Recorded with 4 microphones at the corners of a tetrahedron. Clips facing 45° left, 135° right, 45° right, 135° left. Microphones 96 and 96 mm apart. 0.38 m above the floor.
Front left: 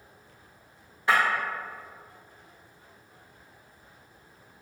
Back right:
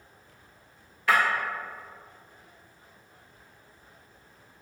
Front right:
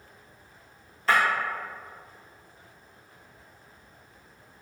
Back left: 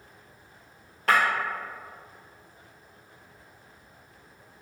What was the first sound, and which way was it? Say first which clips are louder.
Breaking glass: even, back left 1 dB; 105° left.